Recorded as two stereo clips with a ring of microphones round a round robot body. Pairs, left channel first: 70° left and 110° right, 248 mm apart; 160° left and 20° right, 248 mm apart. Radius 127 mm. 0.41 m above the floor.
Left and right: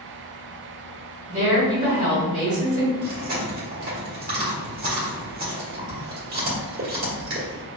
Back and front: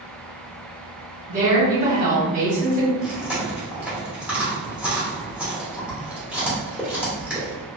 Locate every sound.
1.3 s a woman speaking: 65° right, 1.8 m
3.0 s chewing: 100° right, 1.2 m